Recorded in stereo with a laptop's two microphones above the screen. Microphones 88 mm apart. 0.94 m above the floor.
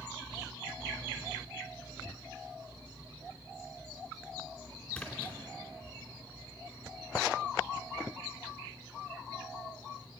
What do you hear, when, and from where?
4.9 s a splash: 10° left (ahead or behind), 2.5 m